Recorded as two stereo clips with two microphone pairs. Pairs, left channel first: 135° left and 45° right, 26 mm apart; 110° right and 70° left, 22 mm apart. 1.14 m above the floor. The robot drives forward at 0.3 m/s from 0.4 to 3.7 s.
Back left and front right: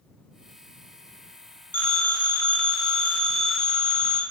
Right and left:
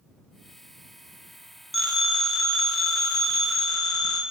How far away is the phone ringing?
About 0.7 m.